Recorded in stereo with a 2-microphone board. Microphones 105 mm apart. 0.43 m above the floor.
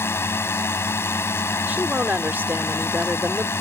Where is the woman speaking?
15° right (ahead or behind).